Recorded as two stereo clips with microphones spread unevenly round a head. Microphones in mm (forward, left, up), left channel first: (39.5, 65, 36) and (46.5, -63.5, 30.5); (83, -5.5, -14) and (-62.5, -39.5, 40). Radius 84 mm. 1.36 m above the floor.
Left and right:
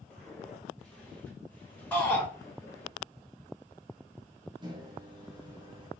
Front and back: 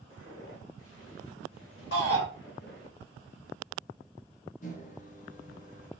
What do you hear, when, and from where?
0.1 s footsteps: 15° left, 3.5 m; by 2.9 s 40° left, 1.7 m
1.9 s a shout: 15° left, 3 m
4.6 s a microwave: 35° right, 1.3 m